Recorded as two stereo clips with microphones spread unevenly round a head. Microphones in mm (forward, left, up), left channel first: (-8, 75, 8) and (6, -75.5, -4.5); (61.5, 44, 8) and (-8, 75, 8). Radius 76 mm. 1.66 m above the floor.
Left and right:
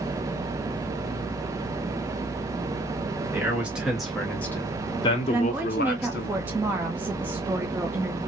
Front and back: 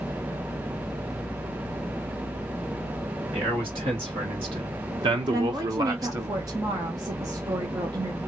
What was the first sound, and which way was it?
A man speaking, 165° right.